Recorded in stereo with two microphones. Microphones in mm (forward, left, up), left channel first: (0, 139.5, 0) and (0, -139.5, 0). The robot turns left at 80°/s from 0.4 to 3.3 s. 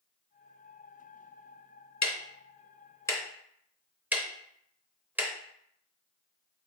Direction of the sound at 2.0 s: 80° left.